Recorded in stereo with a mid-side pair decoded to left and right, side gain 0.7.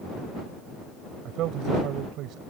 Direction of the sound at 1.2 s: 55° right.